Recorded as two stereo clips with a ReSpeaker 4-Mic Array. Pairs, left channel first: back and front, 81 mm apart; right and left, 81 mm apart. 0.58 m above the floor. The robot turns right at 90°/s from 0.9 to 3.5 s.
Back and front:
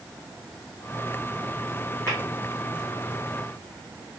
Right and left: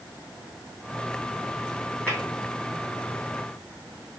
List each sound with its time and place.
2.1 s tapping: 35° left, 2.5 m; by 2.2 s 45° left, 2.5 m